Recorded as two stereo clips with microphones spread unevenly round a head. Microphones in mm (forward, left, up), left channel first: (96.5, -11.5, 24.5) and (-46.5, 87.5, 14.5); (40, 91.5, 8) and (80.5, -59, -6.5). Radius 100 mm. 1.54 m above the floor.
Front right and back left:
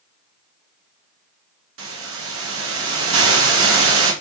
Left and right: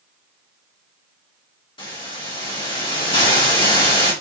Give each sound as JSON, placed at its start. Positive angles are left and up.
{"t": 1.8, "sound": "a hiss", "azimuth_deg": 170, "distance_m": 1.8}